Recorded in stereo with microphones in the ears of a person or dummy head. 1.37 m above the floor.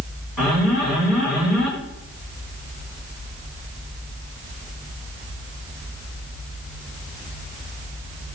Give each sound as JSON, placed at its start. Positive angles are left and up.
{"t": 0.4, "sound": "an alarm", "side_deg": 0, "distance_m": 7.0}